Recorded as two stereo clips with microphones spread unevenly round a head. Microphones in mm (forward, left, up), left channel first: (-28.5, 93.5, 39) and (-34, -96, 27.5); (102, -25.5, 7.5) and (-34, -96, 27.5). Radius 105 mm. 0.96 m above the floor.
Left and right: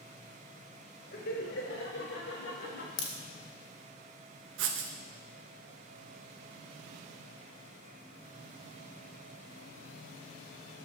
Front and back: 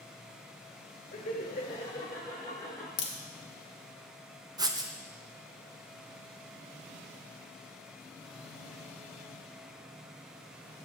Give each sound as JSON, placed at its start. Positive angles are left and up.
{"t": 1.1, "sound": "laughter", "azimuth_deg": 55, "distance_m": 1.3}
{"t": 3.0, "sound": "a crack", "azimuth_deg": 50, "distance_m": 0.9}
{"t": 4.6, "sound": "writing", "azimuth_deg": -85, "distance_m": 0.8}